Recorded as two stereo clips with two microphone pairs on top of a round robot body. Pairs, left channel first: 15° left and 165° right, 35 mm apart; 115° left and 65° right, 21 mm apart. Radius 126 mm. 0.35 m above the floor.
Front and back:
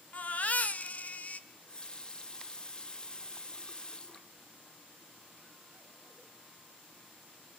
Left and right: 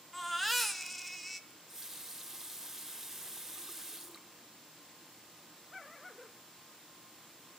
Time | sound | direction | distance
0.1 | a baby crying | 40° left | 0.8 m
1.5 | a running tap | 35° left | 0.9 m